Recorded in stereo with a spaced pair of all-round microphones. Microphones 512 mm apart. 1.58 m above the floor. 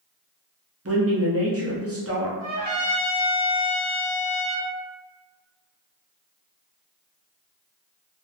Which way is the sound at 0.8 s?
30° right (ahead or behind).